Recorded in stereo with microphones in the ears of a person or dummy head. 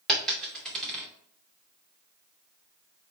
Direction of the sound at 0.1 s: 5° left (ahead or behind).